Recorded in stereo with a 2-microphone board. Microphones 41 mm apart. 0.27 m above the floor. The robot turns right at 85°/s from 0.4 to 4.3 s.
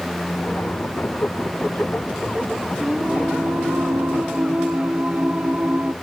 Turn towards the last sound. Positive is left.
turn(degrees=-40)